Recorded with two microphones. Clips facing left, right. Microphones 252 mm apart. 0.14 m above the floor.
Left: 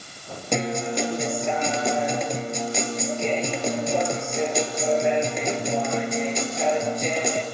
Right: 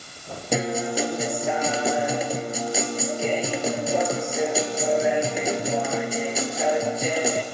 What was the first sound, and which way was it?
A guitar, 5° right (ahead or behind).